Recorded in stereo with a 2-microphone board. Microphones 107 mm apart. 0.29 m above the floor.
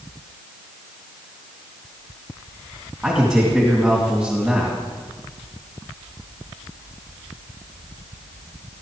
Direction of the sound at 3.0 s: 5° right (ahead or behind).